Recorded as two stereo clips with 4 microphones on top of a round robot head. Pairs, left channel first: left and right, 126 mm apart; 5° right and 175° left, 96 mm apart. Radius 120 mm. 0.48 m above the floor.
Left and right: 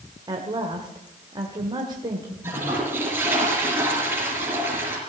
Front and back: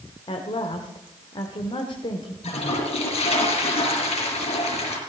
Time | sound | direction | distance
0.3 | a woman speaking | 35° right | 1.8 m
2.4 | a toilet flushing | 15° right | 4.5 m